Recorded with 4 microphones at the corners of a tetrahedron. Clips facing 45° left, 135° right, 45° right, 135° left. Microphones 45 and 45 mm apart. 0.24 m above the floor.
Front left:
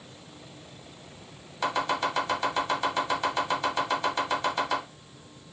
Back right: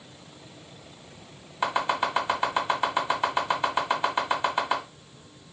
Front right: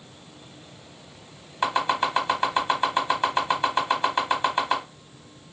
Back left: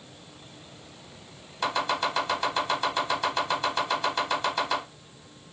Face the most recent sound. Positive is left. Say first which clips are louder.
# back right 2 dB, front right 3 dB
turn(degrees=-90)